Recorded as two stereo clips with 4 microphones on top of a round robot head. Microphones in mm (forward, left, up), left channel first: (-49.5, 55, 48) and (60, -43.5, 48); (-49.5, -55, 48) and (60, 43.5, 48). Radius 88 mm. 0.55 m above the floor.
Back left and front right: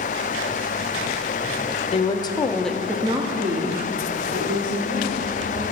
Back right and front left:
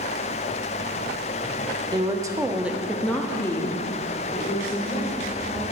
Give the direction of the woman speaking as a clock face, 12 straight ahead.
9 o'clock.